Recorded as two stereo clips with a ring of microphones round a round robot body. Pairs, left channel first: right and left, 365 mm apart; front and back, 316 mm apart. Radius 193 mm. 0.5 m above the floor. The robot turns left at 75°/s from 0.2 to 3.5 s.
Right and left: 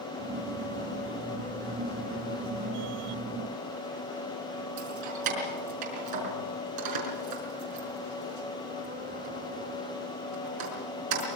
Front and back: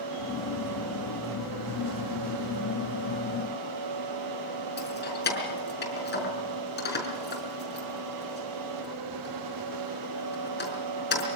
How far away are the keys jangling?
About 5 m.